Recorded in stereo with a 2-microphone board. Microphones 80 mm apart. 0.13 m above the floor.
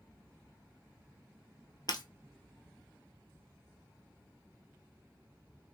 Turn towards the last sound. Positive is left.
turn(degrees=55)  # may be behind; listen again after turning